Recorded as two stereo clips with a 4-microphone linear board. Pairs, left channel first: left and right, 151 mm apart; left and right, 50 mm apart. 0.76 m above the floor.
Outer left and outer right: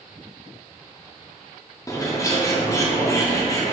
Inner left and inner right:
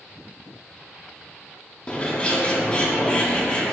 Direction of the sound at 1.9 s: 20° left (ahead or behind).